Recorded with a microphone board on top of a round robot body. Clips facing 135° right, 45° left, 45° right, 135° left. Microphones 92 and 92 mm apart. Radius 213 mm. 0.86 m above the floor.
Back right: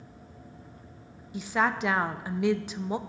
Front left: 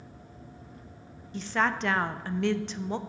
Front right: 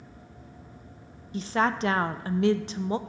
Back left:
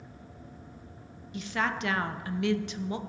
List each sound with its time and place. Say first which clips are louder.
1.3 s a woman speaking: back right 1 dB, front right 5 dB; 60° right, 0.5 m